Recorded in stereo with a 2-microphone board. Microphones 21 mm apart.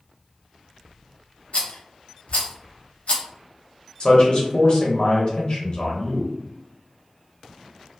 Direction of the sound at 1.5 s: 85° left.